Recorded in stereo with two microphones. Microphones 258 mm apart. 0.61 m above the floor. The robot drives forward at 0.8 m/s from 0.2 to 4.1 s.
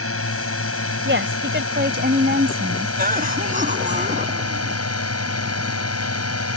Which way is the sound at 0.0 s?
60° left (ahead or behind).